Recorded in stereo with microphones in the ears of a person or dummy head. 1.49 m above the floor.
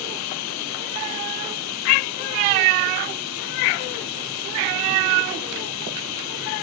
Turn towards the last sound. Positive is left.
turn(degrees=85)